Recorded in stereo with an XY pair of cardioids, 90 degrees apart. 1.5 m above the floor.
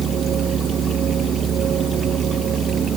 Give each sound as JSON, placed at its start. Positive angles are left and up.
{"t": 0.0, "sound": "a machine running", "azimuth_deg": -70}